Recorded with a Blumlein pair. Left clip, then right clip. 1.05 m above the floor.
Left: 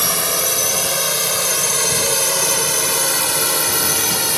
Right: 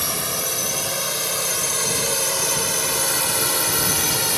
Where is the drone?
20° left; by 4.4 s 5° left.